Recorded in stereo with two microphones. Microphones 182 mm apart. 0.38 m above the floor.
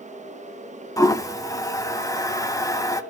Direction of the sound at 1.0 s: 20° left (ahead or behind).